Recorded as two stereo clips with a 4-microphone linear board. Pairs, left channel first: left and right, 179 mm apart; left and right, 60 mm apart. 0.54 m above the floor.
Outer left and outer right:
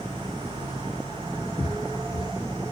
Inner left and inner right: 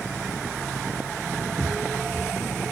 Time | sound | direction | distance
1.6 | footsteps | 30° left (ahead or behind) | 0.5 m